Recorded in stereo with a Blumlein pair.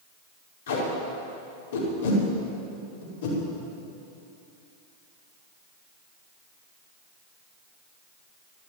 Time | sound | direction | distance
0.7 | tape being pulled | 60° left | 5.5 m